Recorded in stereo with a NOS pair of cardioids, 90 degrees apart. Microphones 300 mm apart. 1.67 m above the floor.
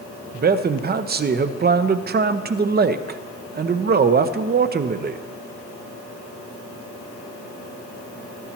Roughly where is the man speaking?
Ahead right.